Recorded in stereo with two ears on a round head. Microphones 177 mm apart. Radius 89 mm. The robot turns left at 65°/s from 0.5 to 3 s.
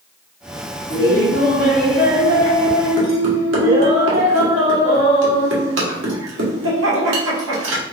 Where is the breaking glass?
I don't hear breaking glass.